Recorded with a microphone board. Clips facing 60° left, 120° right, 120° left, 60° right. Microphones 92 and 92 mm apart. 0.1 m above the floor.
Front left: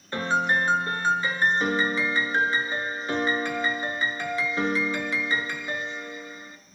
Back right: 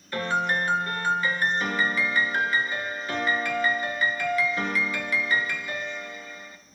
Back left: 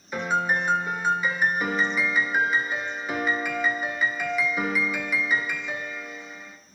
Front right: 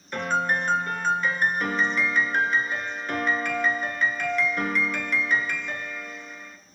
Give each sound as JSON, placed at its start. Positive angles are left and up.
{"t": 0.1, "sound": "a piano", "azimuth_deg": 45, "distance_m": 1.0}